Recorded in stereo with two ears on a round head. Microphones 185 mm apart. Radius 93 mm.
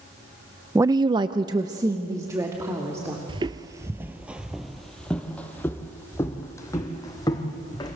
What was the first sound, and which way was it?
A woman speaking, 10° right (ahead or behind).